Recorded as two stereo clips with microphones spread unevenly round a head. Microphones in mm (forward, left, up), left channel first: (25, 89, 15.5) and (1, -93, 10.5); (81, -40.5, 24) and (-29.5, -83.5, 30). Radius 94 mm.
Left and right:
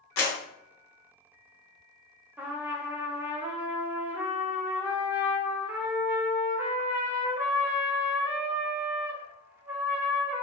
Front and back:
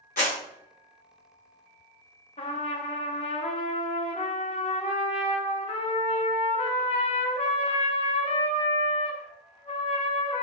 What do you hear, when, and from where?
0.2 s a clap: 65° left, 1.0 m
2.4 s a trumpet: 20° right, 0.5 m